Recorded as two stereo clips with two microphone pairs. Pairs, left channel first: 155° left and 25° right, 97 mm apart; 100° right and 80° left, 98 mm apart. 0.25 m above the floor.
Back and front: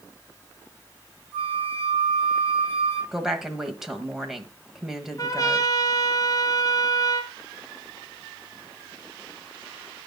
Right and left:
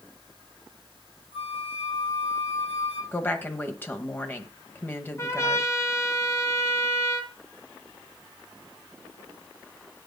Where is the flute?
100° right, 6 m.